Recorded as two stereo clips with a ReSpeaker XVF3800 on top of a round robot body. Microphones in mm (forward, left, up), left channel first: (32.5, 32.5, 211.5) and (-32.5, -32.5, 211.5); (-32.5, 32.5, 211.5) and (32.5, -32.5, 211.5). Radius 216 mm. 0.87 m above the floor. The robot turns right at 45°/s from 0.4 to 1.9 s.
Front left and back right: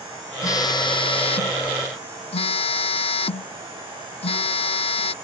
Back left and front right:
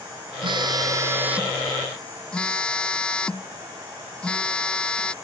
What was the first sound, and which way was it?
A phone buzzing, 10° right.